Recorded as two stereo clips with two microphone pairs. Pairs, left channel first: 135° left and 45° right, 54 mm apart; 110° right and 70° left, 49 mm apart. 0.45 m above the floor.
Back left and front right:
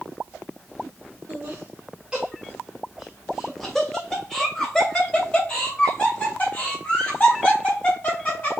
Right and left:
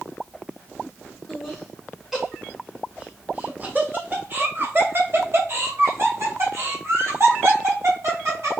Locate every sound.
1.3 s laughter: 40° right, 1.4 m; by 8.6 s 85° left, 3.5 m